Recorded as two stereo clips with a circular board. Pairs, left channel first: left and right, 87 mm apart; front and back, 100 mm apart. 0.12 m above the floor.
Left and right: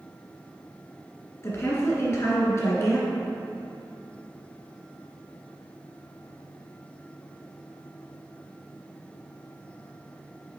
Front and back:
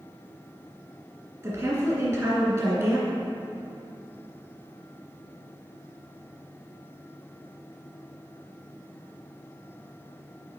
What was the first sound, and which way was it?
A woman speaking, 135° left.